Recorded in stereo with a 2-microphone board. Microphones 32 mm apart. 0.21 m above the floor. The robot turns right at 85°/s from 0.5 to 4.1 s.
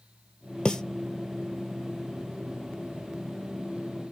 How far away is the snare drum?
About 1.0 m.